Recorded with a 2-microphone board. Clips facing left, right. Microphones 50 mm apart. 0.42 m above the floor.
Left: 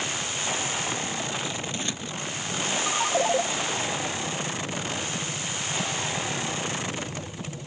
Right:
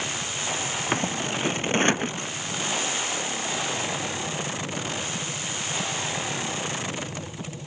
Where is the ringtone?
80° left.